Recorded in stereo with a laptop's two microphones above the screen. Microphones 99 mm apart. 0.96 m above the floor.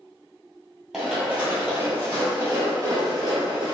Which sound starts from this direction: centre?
Running footsteps, at 0.9 s.